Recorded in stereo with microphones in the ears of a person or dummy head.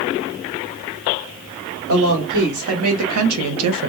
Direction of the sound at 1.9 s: 60° right (ahead or behind).